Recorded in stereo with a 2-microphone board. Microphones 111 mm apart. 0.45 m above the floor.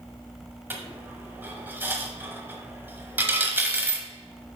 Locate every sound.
0.7 s a dropped coin: 20° right (ahead or behind), 1.0 m